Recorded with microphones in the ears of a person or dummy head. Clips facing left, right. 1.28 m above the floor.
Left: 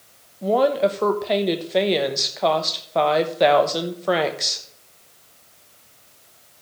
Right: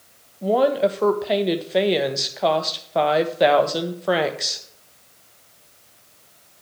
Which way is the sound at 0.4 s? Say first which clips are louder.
Even; centre (ahead or behind).